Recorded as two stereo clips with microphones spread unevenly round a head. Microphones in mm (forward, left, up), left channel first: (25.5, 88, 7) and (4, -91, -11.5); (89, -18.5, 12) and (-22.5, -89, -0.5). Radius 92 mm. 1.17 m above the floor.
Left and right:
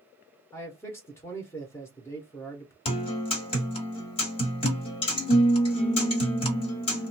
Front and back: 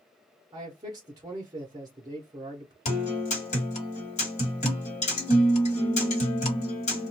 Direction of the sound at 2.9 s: 35° left.